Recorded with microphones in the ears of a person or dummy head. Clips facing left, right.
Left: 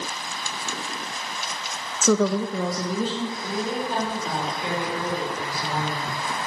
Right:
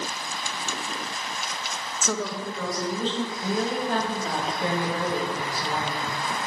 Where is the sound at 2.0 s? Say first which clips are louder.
Left 10 dB; 75° left (ahead or behind), 0.8 m; by 3.3 s 5° left (ahead or behind), 1.8 m.